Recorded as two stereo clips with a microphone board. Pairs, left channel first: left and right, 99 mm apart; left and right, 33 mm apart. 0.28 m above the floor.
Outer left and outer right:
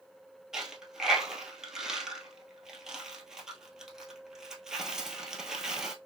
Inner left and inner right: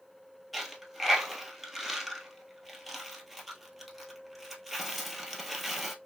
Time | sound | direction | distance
0.5 | a dropped coin | 5° right (ahead or behind) | 1.1 m